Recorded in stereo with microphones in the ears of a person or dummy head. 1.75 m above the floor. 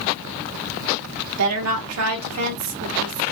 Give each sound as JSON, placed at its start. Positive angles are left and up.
{"t": 1.4, "sound": "a woman speaking", "side_deg": -85, "distance_m": 2.5}